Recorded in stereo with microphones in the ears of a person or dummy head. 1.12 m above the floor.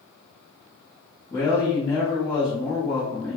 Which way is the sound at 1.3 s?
10° left (ahead or behind).